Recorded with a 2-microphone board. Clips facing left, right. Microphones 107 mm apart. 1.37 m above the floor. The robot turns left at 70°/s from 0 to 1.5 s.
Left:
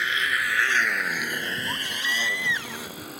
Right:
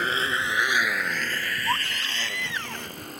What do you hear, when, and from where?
0.0 s a motorcycle: 45° right (ahead or behind); by 3.2 s centre (ahead or behind)
1.7 s a baby crying: 55° right (ahead or behind)